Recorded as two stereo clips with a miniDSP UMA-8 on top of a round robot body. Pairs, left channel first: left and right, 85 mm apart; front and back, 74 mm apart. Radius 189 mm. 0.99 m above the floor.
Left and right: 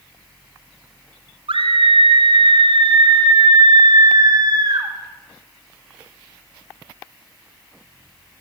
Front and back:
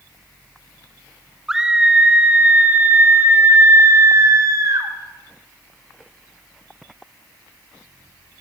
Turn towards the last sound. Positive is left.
turn(degrees=-135)